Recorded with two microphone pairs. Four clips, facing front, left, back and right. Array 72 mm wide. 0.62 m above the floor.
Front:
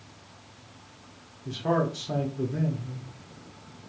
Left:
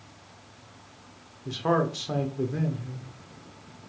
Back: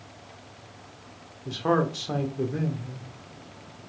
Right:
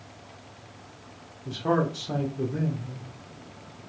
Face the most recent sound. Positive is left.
turn(degrees=145)